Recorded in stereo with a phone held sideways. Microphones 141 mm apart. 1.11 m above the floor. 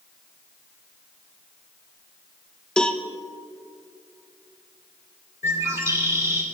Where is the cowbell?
5° left (ahead or behind), 0.9 m.